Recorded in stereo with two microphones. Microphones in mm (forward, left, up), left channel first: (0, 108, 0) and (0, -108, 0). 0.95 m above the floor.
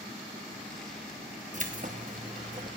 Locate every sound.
1.5 s keys jangling: 35° right (ahead or behind), 0.9 m